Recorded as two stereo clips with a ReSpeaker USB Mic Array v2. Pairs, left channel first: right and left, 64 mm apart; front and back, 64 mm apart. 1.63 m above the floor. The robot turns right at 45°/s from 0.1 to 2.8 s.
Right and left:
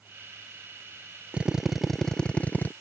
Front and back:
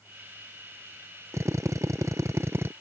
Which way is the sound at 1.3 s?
160° left.